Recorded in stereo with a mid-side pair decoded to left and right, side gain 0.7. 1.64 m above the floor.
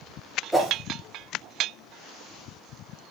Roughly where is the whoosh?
Ahead.